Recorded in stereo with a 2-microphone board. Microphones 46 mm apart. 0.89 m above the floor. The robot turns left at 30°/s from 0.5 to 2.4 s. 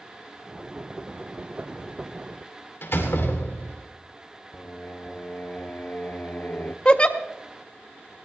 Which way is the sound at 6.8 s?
25° left (ahead or behind).